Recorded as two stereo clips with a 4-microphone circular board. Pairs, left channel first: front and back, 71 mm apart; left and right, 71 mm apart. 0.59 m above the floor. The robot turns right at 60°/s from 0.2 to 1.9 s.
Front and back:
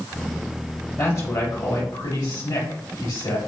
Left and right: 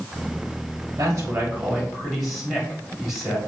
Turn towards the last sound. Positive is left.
turn(degrees=-5)